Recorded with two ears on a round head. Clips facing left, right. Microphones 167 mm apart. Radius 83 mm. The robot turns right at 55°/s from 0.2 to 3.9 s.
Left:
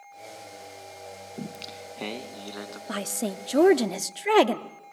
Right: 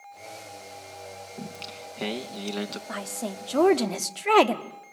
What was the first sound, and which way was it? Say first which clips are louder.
Singing: left 3 dB; 150° left.